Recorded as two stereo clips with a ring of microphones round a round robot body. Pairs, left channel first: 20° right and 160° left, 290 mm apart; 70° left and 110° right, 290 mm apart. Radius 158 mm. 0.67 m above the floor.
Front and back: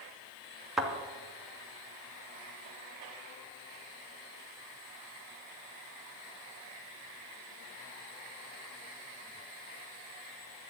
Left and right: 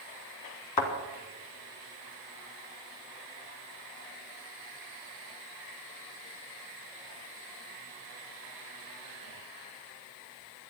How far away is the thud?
About 2.5 m.